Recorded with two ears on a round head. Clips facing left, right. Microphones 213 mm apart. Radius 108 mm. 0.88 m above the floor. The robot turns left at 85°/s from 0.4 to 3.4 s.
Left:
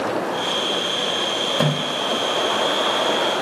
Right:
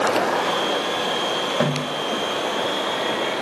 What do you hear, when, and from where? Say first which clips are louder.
1.6 s a snare drum: left 1 dB; centre (ahead or behind), 1.8 m; by 1.9 s 25° left (ahead or behind), 1.8 m